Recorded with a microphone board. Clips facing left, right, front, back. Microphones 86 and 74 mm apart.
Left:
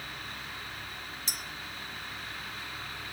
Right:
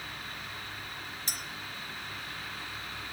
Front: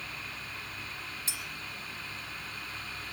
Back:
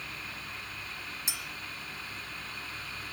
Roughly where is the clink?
Right.